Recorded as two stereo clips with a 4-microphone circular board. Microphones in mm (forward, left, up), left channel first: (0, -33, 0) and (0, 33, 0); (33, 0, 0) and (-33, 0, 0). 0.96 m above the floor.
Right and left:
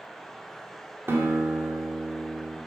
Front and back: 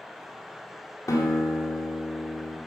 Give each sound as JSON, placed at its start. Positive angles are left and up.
{"t": 1.1, "sound": "a guitar", "azimuth_deg": 35, "distance_m": 1.9}